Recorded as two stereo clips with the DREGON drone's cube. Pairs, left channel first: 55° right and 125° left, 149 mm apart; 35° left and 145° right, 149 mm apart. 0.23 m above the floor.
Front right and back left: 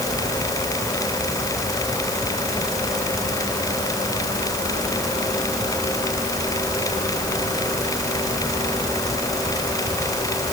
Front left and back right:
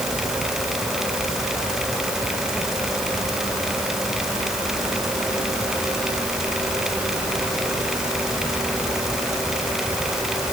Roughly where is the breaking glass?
I don't hear breaking glass.